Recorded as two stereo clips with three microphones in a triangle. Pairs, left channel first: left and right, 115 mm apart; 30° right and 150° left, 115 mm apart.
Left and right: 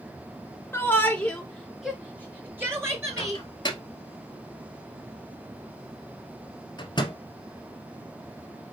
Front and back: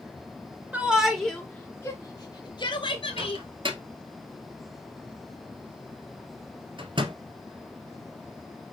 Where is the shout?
100° left, 1.2 m; by 3.4 s 35° right, 1.8 m.